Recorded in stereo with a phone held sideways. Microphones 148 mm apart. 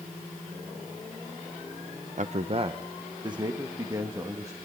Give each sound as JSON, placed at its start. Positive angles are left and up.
{"t": 2.2, "sound": "a man speaking", "side_deg": -55, "distance_m": 0.5}